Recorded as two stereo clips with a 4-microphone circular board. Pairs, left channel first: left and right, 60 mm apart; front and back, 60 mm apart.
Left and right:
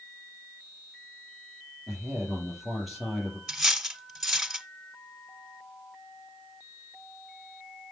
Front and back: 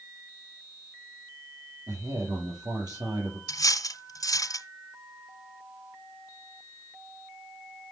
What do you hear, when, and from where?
1.9 s a man speaking: straight behind, 6.5 m
3.5 s cutlery clinking: 5° right, 1.5 m